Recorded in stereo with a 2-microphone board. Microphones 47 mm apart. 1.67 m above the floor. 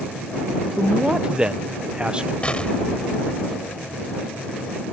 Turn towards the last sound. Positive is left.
turn(degrees=25)  # may be behind; listen again after turning